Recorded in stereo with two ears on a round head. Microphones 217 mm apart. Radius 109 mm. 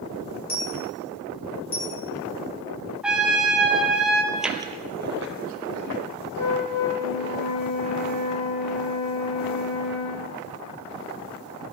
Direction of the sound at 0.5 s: 35° left (ahead or behind).